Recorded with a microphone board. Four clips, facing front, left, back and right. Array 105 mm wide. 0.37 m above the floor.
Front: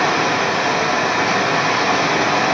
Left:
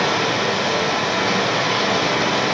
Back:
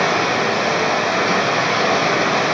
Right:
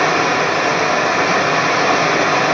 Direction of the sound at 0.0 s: 85° right.